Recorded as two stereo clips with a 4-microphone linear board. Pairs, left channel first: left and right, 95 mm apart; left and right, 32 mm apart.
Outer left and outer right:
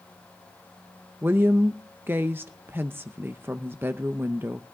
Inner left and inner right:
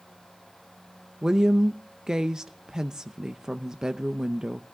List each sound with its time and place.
1.2 s a woman speaking: 25° right (ahead or behind), 0.6 m